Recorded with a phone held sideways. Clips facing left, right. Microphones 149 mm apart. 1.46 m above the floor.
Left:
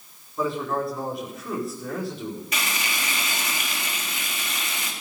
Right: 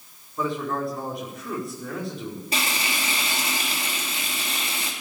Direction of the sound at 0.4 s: Centre (ahead or behind).